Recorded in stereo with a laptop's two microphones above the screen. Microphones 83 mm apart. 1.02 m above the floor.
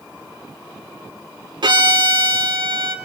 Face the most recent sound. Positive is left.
turn(degrees=-65)  # may be behind; listen again after turning